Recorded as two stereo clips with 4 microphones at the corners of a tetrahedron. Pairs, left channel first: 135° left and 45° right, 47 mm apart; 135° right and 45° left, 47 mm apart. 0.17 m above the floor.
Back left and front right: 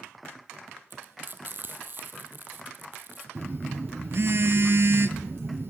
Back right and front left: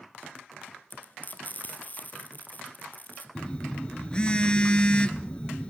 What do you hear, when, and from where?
0.9 s frying: 85° right, 3 m
3.4 s a phone buzzing: 70° right, 1.5 m